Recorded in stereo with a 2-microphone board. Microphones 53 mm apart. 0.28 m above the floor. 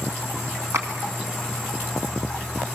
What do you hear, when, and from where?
0.7 s a clap: 65° right (ahead or behind), 2 m